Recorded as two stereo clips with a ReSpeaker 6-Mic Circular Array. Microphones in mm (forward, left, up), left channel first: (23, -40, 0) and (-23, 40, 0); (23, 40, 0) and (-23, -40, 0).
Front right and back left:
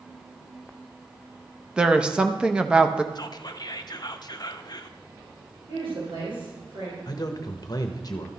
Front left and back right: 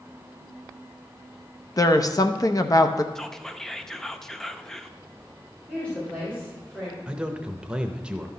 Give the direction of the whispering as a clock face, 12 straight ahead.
1 o'clock.